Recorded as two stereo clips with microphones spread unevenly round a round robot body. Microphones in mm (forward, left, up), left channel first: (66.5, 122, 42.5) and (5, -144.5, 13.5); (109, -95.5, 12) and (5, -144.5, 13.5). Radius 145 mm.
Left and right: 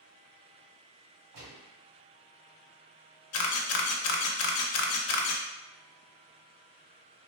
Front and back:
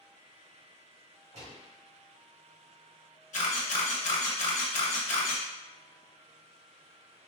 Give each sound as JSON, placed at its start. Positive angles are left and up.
{"t": 1.3, "sound": "a gunshot", "azimuth_deg": -140, "distance_m": 1.5}
{"t": 3.3, "sound": "a camera shutter", "azimuth_deg": 50, "distance_m": 0.5}